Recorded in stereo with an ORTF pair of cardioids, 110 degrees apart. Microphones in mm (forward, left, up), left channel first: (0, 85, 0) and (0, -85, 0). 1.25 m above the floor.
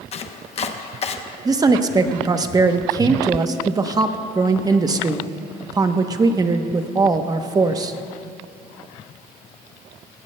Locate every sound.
0.1 s chopping: 40° left, 0.8 m
1.4 s a woman speaking: 20° right, 0.8 m